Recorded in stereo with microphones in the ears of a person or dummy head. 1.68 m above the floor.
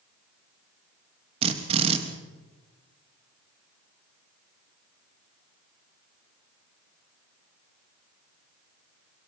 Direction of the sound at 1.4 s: 30° right (ahead or behind).